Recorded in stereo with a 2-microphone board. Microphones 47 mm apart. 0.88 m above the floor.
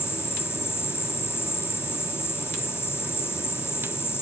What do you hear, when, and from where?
0.0 s an insect: 60° left (ahead or behind)